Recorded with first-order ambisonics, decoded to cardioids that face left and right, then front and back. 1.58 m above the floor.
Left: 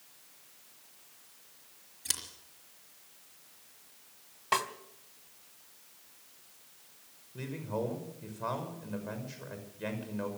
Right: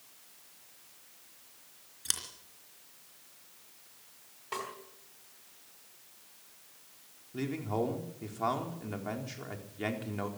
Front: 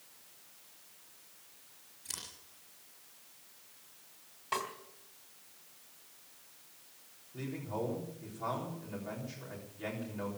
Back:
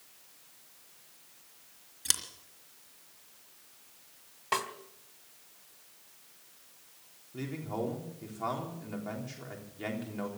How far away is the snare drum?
About 1.5 m.